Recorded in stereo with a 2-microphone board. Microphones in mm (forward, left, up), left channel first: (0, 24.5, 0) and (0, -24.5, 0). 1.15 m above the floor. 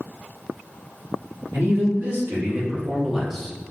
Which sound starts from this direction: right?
A man speaking, at 1.5 s.